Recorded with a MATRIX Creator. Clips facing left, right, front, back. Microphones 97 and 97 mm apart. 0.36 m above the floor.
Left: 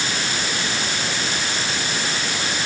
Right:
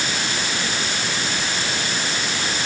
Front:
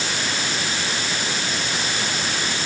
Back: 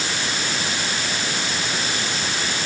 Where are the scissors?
No scissors in this recording.